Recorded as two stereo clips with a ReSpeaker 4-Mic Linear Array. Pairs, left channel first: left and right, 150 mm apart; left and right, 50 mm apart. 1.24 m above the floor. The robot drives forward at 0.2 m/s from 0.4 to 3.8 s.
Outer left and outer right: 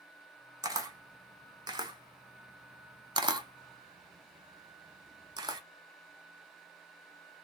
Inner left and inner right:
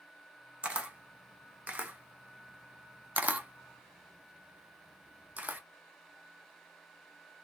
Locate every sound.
0.6 s a camera shutter: 25° right (ahead or behind), 0.8 m; by 5.6 s 30° right (ahead or behind), 0.6 m